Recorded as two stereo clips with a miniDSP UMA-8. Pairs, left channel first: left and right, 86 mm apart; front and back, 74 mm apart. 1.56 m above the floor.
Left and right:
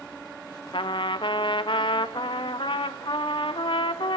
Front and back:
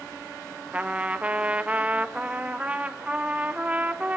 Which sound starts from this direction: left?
A trumpet, at 0.7 s.